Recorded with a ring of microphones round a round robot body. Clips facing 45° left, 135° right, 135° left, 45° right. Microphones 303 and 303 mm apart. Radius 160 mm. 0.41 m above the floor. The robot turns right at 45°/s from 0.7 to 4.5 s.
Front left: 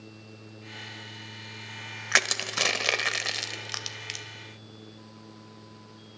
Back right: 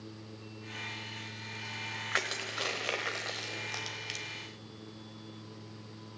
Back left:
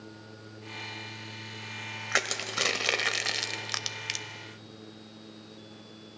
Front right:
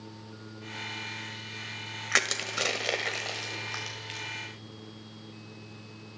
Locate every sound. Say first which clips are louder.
2.1 s crushing: front left 6 dB, even; 30° left, 1.2 m; by 4.2 s 125° left, 1.2 m